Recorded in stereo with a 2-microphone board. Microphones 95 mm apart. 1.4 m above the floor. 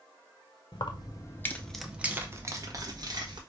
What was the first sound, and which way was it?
Keys jangling, 55° left (ahead or behind).